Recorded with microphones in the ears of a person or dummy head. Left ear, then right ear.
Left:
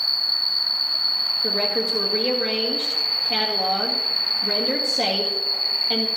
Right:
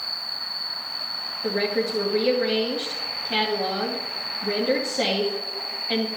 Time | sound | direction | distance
0.0 | an insect | 60° left (ahead or behind) | 1.7 m
1.4 | a woman speaking | centre (ahead or behind) | 2 m